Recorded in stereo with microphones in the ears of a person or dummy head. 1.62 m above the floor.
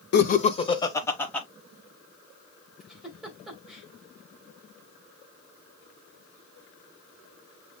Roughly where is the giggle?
Centre.